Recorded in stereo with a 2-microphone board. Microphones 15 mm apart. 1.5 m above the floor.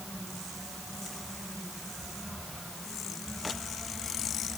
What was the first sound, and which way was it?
Only background noise.